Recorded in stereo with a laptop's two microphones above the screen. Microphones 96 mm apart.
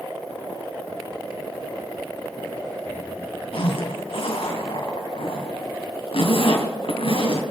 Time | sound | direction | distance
3.5 | a zipper | 75° left (ahead or behind) | 3 m